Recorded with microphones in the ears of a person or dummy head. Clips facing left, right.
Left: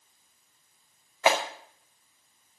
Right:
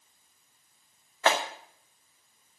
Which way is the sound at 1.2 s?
15° left (ahead or behind).